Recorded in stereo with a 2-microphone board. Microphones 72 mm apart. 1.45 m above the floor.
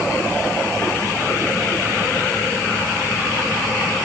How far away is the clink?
I don't hear a clink.